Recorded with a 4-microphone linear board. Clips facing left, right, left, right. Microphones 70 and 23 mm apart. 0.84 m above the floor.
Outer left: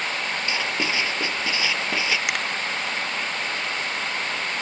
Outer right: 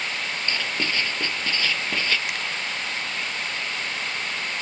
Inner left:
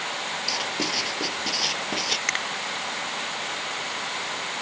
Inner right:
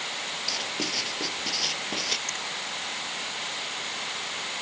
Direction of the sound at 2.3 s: 80° left.